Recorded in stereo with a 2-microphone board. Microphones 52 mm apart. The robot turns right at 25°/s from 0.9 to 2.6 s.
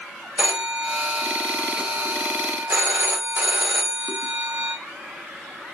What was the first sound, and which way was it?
A phone ringing, 125° right.